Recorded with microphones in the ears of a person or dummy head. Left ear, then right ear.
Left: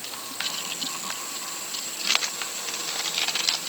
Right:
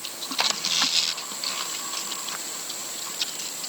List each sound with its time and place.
Only background noise.